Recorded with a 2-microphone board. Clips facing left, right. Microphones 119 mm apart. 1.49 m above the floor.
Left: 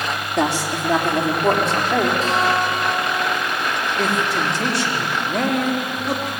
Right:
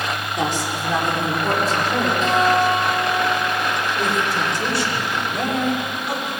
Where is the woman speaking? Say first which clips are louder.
Left 4 dB; 75° left (ahead or behind), 4 m; by 2.1 s 70° left (ahead or behind), 4.5 m.